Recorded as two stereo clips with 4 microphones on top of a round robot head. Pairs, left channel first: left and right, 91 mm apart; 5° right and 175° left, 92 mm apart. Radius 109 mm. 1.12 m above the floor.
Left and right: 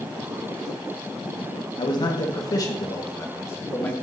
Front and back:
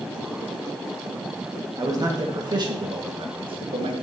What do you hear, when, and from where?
1.8 s a man speaking: 125° left, 2 m; by 3.9 s 160° left, 2 m